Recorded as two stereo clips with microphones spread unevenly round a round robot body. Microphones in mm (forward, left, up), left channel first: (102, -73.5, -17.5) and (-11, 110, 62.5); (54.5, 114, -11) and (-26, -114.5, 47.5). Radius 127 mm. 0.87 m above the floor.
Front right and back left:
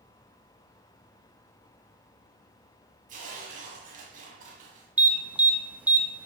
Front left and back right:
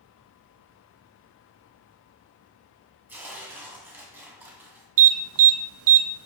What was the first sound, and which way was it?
Tearing paper, 175° left.